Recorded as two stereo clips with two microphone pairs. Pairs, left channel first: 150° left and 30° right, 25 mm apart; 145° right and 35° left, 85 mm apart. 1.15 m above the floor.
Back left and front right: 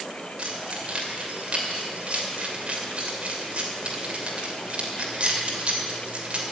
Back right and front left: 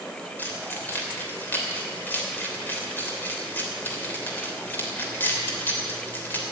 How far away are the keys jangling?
About 3 m.